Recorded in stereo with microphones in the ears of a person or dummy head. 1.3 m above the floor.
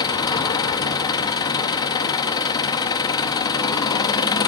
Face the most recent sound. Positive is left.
turn(degrees=25)  # may be behind; listen again after turning